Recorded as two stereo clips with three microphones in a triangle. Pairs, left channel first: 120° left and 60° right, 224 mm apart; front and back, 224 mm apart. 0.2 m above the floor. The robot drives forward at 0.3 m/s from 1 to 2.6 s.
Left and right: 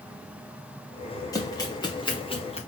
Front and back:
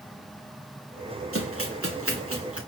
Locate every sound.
1.3 s running footsteps: 165° right, 2.5 m; by 2.6 s 175° right, 1.9 m